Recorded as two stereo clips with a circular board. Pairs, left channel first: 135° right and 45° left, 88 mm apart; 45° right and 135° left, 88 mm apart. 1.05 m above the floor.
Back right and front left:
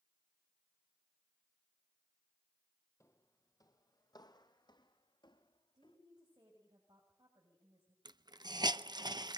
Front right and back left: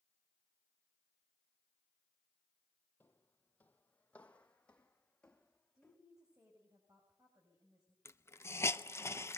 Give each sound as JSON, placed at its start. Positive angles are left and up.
{"t": 3.0, "sound": "footsteps", "azimuth_deg": -100, "distance_m": 1.4}
{"t": 5.7, "sound": "a woman speaking", "azimuth_deg": 85, "distance_m": 6.5}
{"t": 8.1, "sound": "a hiss", "azimuth_deg": 15, "distance_m": 0.6}